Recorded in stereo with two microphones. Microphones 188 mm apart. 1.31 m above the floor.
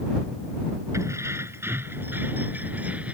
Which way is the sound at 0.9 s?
15° right (ahead or behind).